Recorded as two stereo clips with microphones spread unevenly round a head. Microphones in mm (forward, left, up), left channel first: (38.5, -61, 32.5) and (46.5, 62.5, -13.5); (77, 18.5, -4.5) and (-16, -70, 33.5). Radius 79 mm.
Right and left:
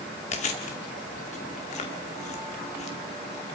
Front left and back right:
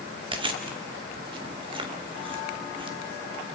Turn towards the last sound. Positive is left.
turn(degrees=-100)